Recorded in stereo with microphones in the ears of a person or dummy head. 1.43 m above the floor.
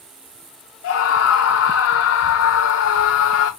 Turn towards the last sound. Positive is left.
turn(degrees=80)